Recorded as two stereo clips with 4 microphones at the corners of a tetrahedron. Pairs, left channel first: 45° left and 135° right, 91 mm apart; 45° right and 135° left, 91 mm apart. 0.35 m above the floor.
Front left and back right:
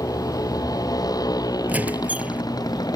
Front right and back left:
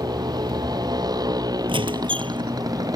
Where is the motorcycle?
95° left; by 3.0 s 90° left.